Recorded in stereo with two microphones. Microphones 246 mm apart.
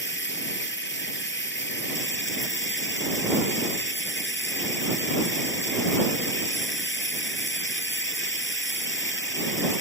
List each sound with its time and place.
0.0 s running water: 50° left (ahead or behind)